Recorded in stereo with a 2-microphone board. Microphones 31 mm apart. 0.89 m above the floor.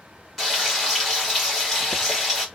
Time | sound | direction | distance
0.4 | frying | centre (ahead or behind) | 1.6 m